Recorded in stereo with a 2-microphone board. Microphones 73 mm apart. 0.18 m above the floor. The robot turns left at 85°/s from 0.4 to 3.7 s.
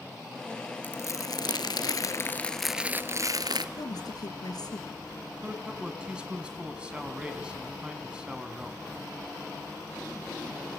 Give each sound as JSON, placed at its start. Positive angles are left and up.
{"t": 0.8, "sound": "crumpling", "azimuth_deg": 155, "distance_m": 0.8}
{"t": 3.8, "sound": "a woman speaking", "side_deg": 65, "distance_m": 2.5}
{"t": 5.4, "sound": "a man speaking", "side_deg": -15, "distance_m": 1.8}